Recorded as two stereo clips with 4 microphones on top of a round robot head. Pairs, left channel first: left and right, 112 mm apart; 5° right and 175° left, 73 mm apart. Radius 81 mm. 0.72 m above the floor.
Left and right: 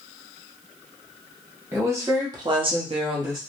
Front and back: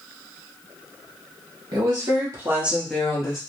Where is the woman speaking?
160° right, 1.6 m; by 3.4 s 40° right, 1.0 m.